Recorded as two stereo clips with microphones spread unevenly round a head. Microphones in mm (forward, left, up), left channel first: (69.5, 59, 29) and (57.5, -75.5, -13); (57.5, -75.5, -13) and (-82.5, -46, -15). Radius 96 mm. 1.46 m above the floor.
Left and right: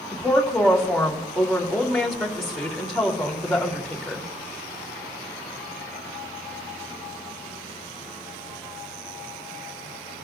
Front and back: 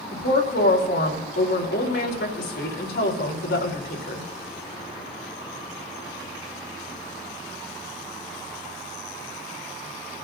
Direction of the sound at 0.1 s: 5° right.